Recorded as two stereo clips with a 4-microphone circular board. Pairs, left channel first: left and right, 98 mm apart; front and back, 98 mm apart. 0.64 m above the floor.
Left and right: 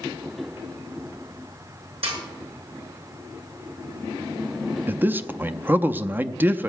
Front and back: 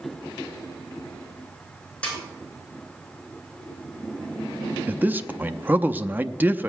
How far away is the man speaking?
About 0.6 m.